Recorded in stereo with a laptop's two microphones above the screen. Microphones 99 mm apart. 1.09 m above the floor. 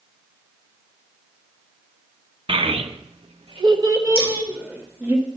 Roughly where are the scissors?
Right.